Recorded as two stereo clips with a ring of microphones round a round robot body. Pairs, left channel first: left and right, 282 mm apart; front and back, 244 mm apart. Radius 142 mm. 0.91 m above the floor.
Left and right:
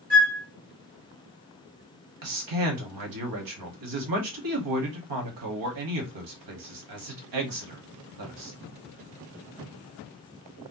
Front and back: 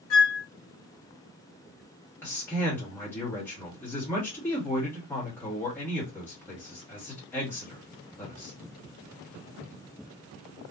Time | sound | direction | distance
0.1 | a flute | 30° right | 1.9 m
2.2 | a man speaking | 80° right | 1.4 m